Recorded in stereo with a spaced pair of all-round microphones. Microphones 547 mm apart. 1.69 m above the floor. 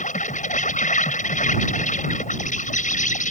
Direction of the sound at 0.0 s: 15° left (ahead or behind).